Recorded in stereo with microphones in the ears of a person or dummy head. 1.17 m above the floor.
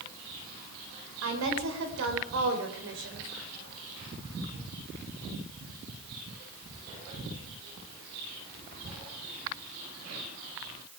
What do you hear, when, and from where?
1.2 s a woman speaking: 75° right (ahead or behind), 4.5 m; by 3.3 s 55° right (ahead or behind), 4 m